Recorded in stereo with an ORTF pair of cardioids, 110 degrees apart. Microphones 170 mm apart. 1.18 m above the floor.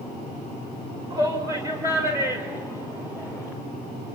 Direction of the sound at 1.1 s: 25° right.